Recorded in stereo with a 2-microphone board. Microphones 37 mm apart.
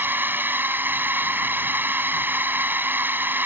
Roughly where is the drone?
Right.